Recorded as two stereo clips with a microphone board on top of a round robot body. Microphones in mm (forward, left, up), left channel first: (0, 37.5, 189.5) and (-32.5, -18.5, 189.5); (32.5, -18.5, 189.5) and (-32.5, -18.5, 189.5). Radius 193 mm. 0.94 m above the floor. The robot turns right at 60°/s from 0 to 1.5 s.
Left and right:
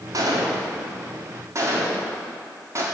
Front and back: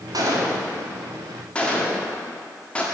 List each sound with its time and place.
0.1 s a gunshot: 155° right, 1.7 m; by 2.8 s 75° right, 1.7 m